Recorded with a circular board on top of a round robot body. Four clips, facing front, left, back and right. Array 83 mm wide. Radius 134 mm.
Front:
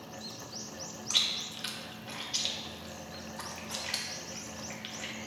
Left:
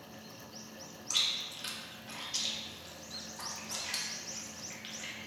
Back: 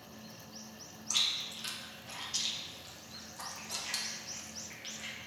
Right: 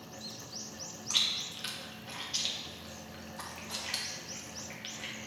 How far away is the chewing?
About 0.9 m.